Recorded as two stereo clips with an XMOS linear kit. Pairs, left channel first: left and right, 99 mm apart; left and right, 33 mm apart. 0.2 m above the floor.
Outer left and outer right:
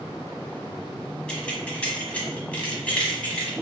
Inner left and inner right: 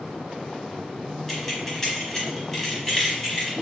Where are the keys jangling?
10° left (ahead or behind), 1.1 m; by 3.5 s 15° left (ahead or behind), 1.4 m.